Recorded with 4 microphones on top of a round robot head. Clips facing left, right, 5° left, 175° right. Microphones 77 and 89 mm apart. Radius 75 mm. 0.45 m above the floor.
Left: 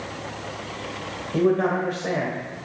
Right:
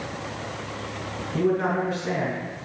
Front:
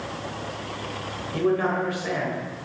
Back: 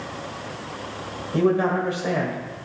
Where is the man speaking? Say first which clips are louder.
Left 3 dB, back 3 dB; 125° left, 1.8 m.